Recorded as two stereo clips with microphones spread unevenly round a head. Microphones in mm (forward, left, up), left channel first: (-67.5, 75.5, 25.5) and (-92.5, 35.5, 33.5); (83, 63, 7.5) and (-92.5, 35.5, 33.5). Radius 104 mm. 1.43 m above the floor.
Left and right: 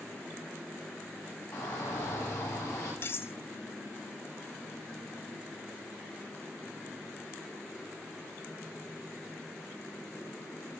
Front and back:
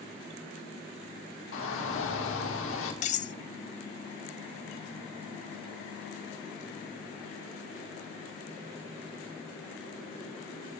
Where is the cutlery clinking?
35° left, 0.6 m.